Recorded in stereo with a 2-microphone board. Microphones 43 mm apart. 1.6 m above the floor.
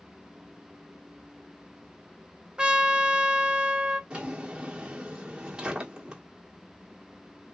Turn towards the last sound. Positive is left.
turn(degrees=-20)  # may be behind; listen again after turning